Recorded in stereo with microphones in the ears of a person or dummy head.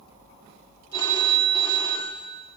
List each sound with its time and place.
0.9 s a phone ringing: 20° left (ahead or behind), 2.5 m